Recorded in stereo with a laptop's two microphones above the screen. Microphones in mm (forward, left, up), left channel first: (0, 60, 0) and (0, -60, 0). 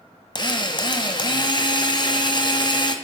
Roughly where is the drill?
Left.